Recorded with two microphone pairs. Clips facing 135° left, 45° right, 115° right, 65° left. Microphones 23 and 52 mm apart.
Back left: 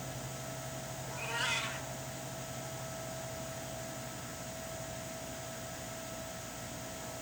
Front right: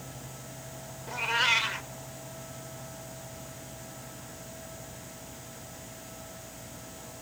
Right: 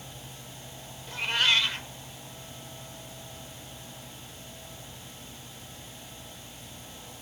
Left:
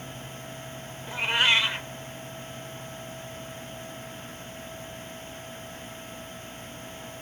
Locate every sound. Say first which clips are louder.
1.1 s a cat meowing: front right 10 dB, left 3 dB; 5° right, 0.9 m